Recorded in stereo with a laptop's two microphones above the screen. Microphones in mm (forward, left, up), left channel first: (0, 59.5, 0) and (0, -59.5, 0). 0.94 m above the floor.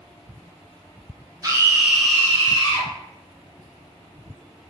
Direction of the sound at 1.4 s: 30° right (ahead or behind).